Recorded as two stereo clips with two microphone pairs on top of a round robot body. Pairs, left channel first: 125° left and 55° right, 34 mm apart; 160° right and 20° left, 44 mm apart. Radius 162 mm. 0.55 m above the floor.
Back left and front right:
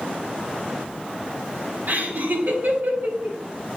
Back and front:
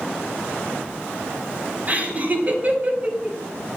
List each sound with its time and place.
1.9 s laughter: 30° right, 4 m